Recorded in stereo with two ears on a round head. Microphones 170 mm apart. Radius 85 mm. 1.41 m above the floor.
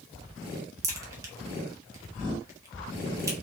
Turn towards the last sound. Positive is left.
turn(degrees=-15)  # may be behind; listen again after turning